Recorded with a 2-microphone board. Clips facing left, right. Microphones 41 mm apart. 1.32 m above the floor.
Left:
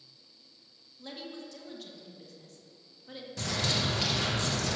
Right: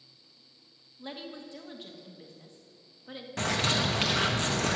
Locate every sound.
1.0 s a woman speaking: 20° right (ahead or behind), 1.5 m
3.4 s a bird: 45° right (ahead or behind), 1.2 m